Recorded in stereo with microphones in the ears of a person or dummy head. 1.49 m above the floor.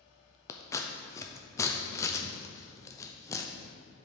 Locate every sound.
0.5 s scissors: 15° left (ahead or behind), 0.6 m